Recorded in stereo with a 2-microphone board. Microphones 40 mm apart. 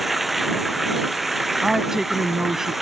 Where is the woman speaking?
10° right (ahead or behind).